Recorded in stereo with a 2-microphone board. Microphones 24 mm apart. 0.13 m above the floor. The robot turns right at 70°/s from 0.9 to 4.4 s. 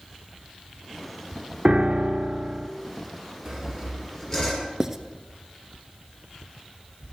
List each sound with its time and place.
1.6 s a piano: 120° right, 0.5 m; by 2.7 s 45° right, 0.5 m
3.5 s sawing: 30° right, 3 m; by 4.7 s 35° left, 3 m
4.8 s writing: 20° right (ahead or behind), 0.5 m